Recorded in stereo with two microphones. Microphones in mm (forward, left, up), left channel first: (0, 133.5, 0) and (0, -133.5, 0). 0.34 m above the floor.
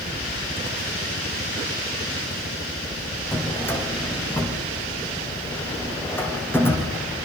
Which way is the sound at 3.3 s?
10° left (ahead or behind).